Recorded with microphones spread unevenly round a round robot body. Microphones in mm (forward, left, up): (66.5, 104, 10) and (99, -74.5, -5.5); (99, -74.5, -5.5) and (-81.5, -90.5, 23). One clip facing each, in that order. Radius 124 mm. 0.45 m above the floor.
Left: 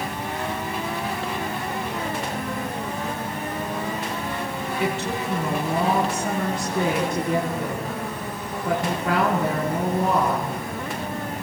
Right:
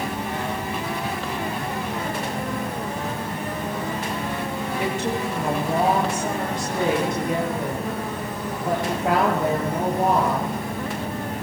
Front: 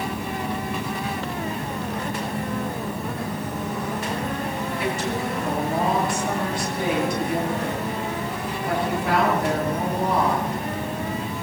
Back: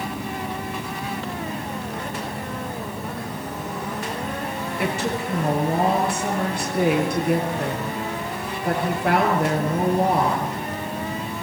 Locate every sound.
4.8 s a woman speaking: 140° right, 9.5 m